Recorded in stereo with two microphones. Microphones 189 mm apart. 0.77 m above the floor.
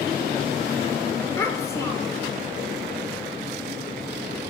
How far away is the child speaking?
About 1.8 m.